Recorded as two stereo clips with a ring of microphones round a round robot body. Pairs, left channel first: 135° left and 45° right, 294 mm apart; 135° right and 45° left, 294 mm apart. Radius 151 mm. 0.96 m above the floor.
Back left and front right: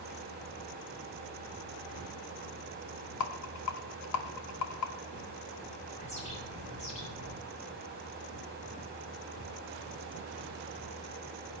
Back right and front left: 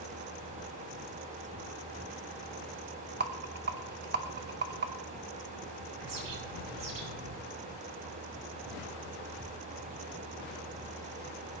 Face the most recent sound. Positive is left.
turn(degrees=65)